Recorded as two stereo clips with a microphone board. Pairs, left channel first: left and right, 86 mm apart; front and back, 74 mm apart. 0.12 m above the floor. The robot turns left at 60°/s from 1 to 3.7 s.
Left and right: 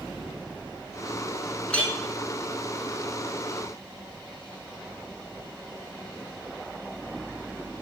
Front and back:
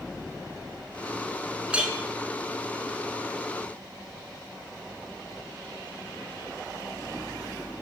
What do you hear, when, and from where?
1.7 s a clink: 140° left, 0.6 m; by 1.9 s 125° left, 0.6 m